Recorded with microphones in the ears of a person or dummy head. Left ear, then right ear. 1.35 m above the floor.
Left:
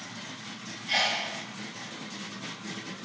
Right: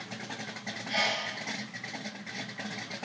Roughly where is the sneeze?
Left.